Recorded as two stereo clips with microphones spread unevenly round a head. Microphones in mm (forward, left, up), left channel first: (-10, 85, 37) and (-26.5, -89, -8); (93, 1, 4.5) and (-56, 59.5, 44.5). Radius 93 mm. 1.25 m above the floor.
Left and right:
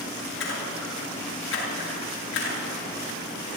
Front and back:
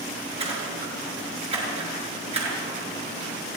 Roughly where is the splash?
Left.